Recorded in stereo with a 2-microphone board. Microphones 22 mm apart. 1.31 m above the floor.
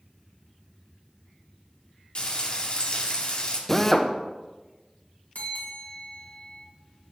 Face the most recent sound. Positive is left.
turn(degrees=80)